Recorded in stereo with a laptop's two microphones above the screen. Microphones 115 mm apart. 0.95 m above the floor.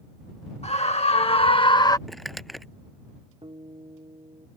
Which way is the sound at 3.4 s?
50° right (ahead or behind).